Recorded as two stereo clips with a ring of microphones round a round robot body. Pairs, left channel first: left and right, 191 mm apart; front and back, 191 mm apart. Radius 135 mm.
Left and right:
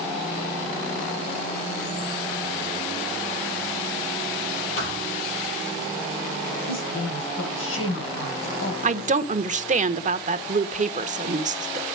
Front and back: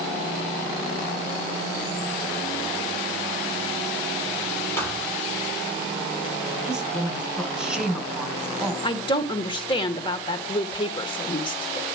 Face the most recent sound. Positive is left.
turn(degrees=-60)